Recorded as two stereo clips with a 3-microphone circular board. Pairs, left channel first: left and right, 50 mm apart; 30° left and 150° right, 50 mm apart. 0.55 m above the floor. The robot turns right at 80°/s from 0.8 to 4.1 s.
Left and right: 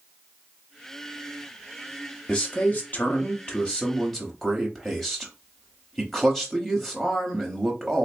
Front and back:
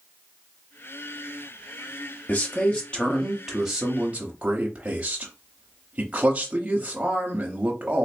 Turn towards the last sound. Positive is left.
turn(degrees=175)